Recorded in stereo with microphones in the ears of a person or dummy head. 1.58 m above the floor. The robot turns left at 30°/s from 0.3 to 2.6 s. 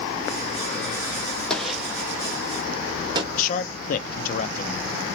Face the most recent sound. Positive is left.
turn(degrees=50)  # may be behind; listen again after turning